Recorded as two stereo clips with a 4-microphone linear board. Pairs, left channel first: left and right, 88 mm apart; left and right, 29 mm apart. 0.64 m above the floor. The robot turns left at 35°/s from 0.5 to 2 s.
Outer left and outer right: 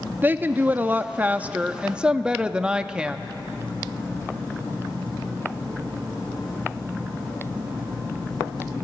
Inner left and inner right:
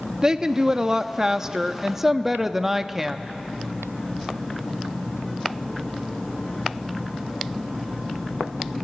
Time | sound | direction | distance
0.2 | a woman speaking | 25° right (ahead or behind) | 0.6 m